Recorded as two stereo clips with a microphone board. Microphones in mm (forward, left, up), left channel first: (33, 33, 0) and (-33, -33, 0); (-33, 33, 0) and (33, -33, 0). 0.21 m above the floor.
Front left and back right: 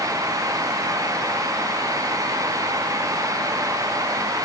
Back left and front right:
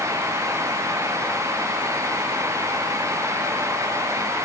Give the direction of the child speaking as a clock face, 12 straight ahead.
No child speaking in this recording.